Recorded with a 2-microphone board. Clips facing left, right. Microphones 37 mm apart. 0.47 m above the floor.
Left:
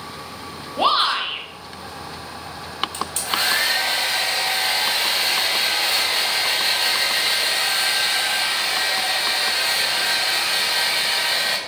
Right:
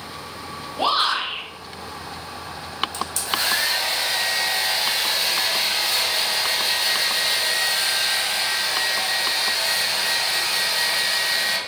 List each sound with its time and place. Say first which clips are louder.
0.8 s a shout: left 2 dB; 25° left (ahead or behind), 0.9 m
2.9 s a hair dryer: left 4 dB; 40° left (ahead or behind), 0.8 m